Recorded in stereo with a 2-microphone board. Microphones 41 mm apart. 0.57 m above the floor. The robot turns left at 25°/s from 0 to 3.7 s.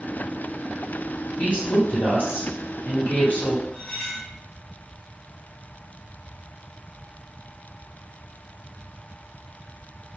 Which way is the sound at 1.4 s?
115° left.